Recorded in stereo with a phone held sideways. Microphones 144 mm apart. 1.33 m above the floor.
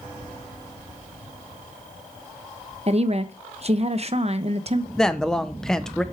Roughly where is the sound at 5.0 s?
Centre.